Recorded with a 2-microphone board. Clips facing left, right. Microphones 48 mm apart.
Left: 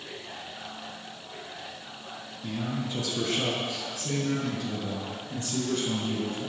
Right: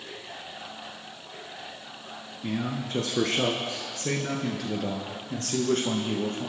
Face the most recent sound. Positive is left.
turn(degrees=-65)  # may be behind; listen again after turning